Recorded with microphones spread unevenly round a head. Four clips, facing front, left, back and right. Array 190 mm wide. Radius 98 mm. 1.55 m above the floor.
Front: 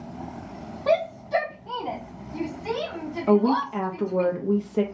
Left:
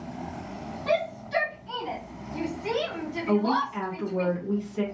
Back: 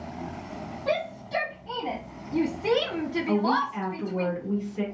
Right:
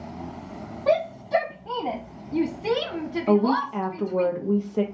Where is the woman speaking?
40° right, 0.6 m.